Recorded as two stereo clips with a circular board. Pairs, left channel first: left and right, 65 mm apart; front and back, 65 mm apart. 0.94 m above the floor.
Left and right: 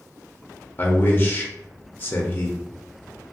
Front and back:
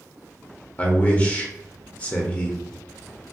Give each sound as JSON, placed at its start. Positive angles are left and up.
{"t": 0.8, "sound": "a man speaking", "azimuth_deg": 55, "distance_m": 0.5}